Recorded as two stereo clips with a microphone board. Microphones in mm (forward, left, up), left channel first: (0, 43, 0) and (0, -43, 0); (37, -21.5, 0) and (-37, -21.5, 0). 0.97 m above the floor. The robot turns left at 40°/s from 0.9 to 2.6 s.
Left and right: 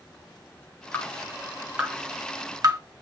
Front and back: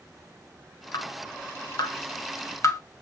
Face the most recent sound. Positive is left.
turn(degrees=-40)